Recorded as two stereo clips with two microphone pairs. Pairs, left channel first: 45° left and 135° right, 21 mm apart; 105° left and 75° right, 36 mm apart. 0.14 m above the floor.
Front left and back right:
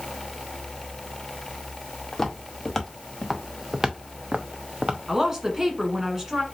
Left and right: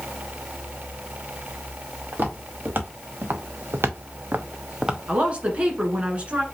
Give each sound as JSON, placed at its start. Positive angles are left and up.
{"t": 2.1, "sound": "footsteps", "azimuth_deg": -30, "distance_m": 2.0}
{"t": 5.1, "sound": "a woman speaking", "azimuth_deg": -90, "distance_m": 1.5}